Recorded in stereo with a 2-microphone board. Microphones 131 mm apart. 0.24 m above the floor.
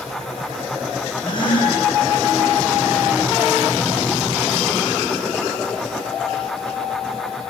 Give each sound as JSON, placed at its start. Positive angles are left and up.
{"t": 1.2, "sound": "a gasp", "side_deg": 35, "distance_m": 9.0}